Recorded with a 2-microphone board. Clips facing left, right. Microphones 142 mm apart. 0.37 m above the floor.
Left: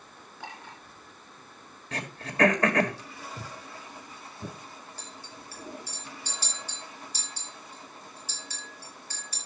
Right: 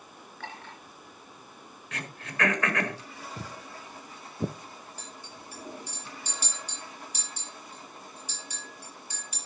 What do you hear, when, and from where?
0.4 s a clink: 10° left (ahead or behind), 4.5 m
1.9 s throat clearing: 35° left (ahead or behind), 1.6 m
3.4 s footsteps: 20° right (ahead or behind), 1.0 m; by 4.5 s 70° right (ahead or behind), 1.1 m
5.0 s a clink: 15° right (ahead or behind), 5 m